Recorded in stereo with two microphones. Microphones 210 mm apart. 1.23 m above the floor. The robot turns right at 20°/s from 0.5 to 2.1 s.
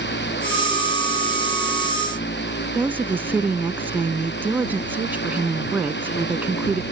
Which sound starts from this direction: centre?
A woman speaking, at 2.8 s.